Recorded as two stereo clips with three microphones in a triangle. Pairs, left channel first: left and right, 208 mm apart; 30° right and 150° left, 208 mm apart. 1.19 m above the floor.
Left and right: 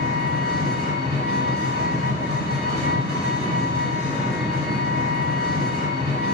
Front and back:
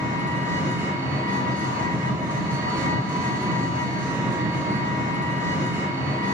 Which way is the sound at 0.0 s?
140° right.